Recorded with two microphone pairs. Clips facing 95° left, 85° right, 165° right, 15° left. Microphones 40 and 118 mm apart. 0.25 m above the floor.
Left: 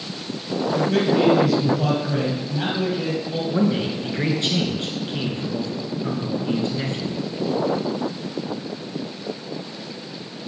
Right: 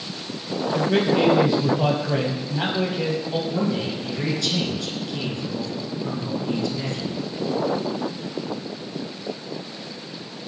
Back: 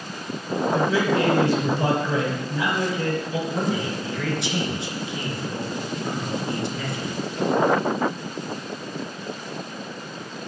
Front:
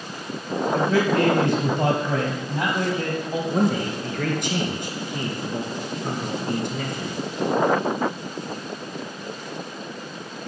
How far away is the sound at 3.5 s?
About 3 m.